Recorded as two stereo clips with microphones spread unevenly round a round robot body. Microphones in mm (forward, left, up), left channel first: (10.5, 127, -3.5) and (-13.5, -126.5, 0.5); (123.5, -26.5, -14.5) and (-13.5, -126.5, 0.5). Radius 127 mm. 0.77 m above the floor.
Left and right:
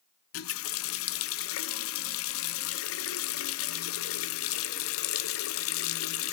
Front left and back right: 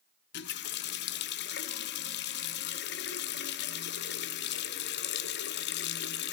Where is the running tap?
50° left, 0.6 m.